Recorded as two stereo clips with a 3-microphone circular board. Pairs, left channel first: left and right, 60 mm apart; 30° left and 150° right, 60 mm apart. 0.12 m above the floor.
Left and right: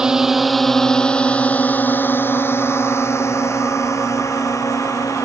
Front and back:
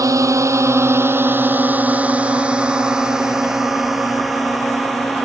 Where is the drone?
170° right; by 5.3 s 120° left.